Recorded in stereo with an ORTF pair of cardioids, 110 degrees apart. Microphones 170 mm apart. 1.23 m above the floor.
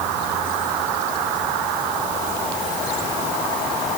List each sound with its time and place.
Only background noise.